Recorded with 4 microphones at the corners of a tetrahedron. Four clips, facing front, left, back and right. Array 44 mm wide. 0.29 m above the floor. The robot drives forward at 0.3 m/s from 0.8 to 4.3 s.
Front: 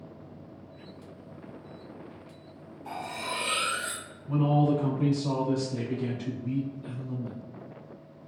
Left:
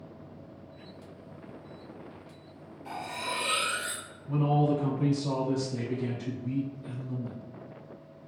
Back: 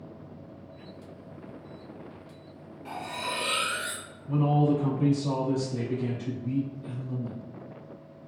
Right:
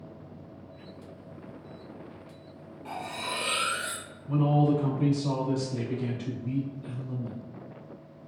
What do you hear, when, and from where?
2.9 s cutlery clinking: 145° right, 1.6 m; by 4.0 s 150° right, 1.9 m
4.3 s a man speaking: 100° right, 1.1 m